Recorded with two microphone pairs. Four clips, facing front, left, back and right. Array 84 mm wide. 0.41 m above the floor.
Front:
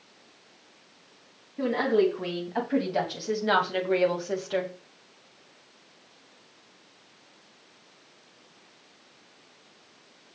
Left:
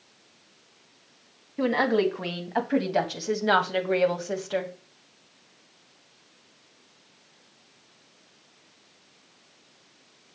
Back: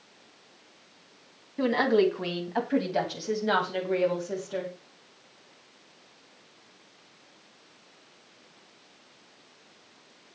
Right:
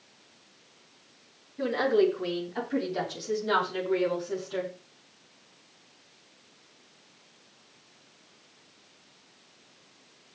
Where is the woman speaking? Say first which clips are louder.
Left 1 dB, back 1 dB; 110° left, 4 m; by 4.7 s 55° left, 3 m.